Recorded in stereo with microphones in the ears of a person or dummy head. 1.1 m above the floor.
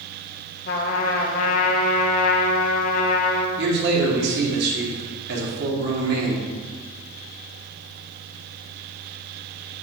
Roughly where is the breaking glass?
No breaking glass in this recording.